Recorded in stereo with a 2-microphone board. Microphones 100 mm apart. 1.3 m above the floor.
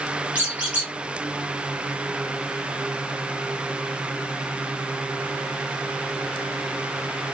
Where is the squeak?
15° right (ahead or behind), 1.9 m.